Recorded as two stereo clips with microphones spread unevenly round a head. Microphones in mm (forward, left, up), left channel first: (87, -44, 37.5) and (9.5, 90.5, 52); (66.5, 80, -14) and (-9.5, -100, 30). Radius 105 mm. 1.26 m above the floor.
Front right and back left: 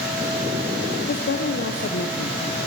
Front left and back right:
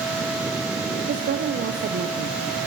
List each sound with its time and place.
1.1 s a woman speaking: 65° right, 0.5 m